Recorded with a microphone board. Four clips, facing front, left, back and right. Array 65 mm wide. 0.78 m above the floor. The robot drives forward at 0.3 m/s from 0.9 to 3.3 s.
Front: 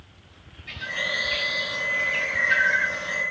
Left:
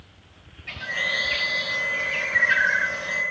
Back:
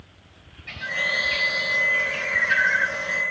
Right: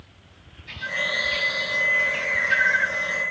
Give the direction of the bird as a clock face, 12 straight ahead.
8 o'clock.